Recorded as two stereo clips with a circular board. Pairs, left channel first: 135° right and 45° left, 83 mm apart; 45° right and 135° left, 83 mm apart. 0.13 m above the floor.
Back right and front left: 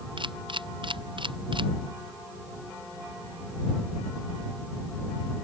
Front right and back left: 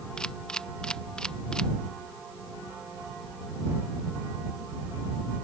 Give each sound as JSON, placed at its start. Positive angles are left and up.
{"t": 0.2, "sound": "a camera shutter", "azimuth_deg": 35}